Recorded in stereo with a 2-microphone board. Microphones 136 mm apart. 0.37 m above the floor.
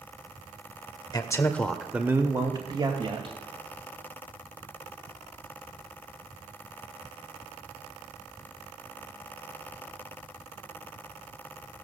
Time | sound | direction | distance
1.1 | a man speaking | 30° left (ahead or behind) | 1.0 m